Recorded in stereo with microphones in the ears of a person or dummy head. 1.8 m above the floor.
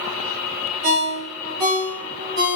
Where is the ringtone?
50° right (ahead or behind), 1.3 m.